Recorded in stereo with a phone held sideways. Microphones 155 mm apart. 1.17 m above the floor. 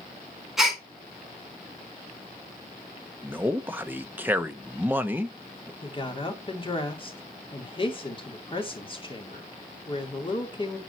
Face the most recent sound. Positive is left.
turn(degrees=35)  # may be behind; listen again after turning